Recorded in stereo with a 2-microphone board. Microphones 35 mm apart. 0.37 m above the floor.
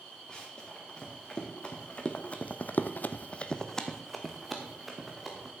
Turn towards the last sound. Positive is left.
turn(degrees=-5)  # may be behind; listen again after turning